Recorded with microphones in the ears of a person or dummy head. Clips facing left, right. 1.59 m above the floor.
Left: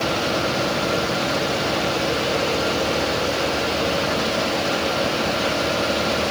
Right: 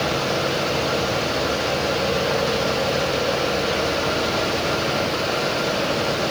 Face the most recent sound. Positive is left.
No sound to turn to.